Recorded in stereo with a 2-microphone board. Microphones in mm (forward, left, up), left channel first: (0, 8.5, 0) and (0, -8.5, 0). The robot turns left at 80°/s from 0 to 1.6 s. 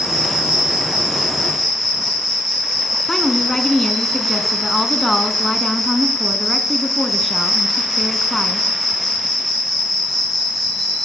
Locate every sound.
0.0 s an insect: 45° right, 9 m; by 11.1 s 175° right, 9 m
3.1 s a woman speaking: 15° left (ahead or behind), 1.1 m